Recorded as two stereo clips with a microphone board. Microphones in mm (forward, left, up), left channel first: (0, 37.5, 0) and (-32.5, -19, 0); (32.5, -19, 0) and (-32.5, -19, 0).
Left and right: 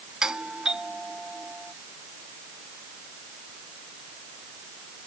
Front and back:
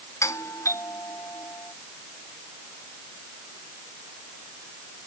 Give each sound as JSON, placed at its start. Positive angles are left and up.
{"t": 0.2, "sound": "a doorbell", "azimuth_deg": -40}